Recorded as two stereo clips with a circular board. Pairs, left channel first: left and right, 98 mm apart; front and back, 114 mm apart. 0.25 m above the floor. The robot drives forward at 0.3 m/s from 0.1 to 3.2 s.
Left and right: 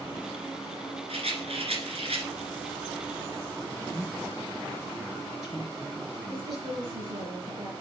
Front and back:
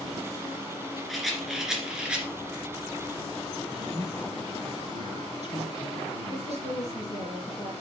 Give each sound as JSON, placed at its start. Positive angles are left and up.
{"t": 1.1, "sound": "a rattle", "azimuth_deg": -90, "distance_m": 2.0}
{"t": 3.7, "sound": "a man speaking", "azimuth_deg": 180, "distance_m": 4.0}
{"t": 6.3, "sound": "a woman speaking", "azimuth_deg": -55, "distance_m": 2.5}